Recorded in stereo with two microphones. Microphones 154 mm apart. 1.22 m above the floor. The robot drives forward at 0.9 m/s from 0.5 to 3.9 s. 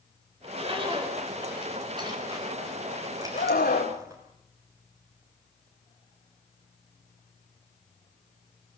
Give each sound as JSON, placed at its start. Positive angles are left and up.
{"t": 0.4, "sound": "a zipper", "side_deg": -40, "distance_m": 3.5}
{"t": 3.4, "sound": "a scream", "side_deg": 80, "distance_m": 3.0}